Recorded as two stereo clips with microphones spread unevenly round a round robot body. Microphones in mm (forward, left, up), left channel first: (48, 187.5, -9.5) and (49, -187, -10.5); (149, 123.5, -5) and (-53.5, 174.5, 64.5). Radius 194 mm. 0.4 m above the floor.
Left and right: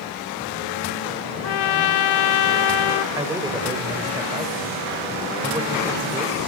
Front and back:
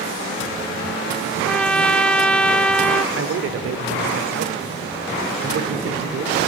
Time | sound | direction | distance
1.4 | a trumpet | 65° left | 0.6 m
3.1 | a man speaking | 165° right | 1.1 m